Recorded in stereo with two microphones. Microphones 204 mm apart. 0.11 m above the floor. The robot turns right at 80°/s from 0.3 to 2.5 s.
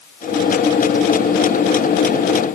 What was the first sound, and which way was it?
Only background noise.